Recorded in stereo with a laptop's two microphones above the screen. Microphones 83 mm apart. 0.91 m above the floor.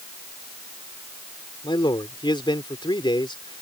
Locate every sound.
1.6 s a man speaking: 70° left (ahead or behind)